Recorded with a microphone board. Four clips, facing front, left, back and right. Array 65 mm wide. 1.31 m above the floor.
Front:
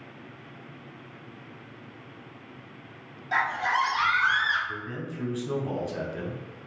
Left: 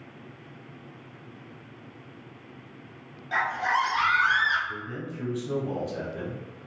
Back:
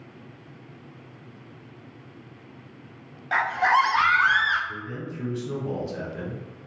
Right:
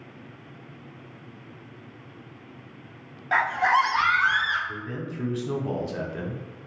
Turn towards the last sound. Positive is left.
turn(degrees=-70)